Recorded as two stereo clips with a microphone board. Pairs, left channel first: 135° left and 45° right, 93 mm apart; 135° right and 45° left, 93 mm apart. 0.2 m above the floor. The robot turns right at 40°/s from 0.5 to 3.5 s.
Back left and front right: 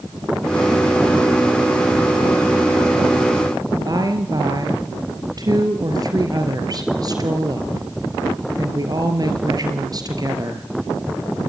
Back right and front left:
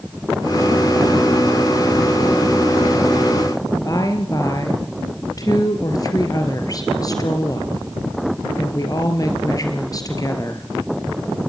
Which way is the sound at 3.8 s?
90° right.